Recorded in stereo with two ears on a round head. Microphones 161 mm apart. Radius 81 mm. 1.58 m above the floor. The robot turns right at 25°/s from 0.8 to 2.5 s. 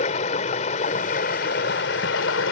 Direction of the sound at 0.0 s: 40° left.